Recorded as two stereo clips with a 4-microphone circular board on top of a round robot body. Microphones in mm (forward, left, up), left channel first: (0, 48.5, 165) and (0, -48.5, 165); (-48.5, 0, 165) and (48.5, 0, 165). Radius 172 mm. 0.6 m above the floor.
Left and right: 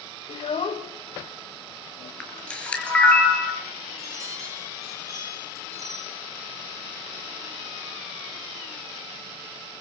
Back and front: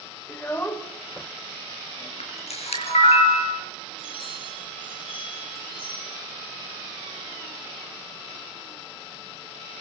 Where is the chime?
150° right, 7 m.